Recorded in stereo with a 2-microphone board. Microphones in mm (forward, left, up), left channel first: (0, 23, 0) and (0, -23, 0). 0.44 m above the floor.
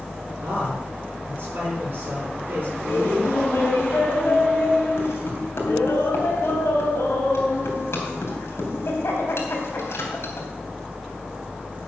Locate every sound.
0.4 s a man speaking: 45° right (ahead or behind), 6 m
2.8 s laughter: 70° left (ahead or behind), 3.5 m